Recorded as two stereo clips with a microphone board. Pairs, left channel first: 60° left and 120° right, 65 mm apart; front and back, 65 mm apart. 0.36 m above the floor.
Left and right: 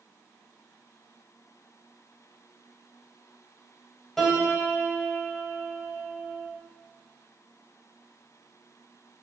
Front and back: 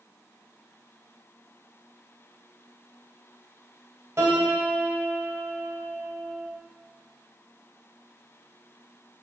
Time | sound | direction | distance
4.2 | a piano | 145° left | 0.9 m